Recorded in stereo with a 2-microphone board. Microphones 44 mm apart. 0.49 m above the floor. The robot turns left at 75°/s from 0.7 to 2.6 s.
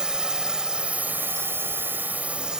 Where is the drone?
25° right; by 2.6 s 165° right.